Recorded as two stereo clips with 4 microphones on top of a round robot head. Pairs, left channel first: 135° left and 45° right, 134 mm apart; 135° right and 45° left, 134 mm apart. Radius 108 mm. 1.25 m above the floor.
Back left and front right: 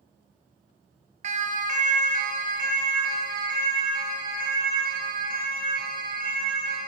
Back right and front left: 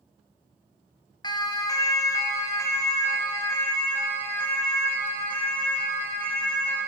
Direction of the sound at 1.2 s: 75° right.